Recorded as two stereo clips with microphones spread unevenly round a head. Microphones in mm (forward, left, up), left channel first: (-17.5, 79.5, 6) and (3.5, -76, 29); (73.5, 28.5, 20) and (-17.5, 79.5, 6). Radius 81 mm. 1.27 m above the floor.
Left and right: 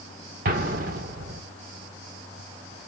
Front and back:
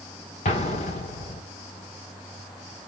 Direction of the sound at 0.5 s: 50° right.